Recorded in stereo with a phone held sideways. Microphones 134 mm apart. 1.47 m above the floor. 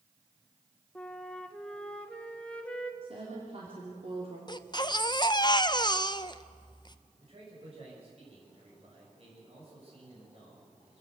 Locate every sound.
0.9 s a flute: 10° left (ahead or behind), 1.5 m
3.0 s a woman speaking: 45° right (ahead or behind), 3.5 m
4.5 s a baby crying: 30° left (ahead or behind), 0.6 m
7.2 s a man speaking: 45° right (ahead or behind), 7.5 m